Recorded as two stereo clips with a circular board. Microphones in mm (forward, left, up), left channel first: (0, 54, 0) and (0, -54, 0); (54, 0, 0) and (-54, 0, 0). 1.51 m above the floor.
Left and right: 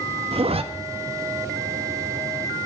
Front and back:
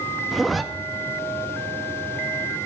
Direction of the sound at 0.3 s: 90° right.